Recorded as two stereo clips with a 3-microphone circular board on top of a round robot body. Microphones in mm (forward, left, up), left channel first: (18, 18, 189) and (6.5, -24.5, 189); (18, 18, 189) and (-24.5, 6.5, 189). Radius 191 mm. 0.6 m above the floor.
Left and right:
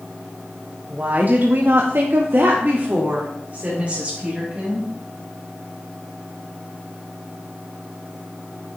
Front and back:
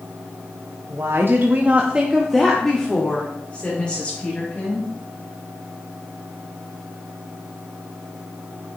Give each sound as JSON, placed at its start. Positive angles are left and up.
{"t": 0.9, "sound": "a woman speaking", "azimuth_deg": -160, "distance_m": 1.2}